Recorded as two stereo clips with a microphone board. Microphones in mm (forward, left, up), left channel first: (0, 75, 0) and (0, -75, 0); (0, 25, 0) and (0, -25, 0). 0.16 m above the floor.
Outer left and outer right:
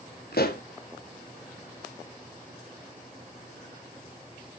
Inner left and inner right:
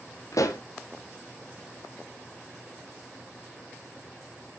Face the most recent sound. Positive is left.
turn(degrees=80)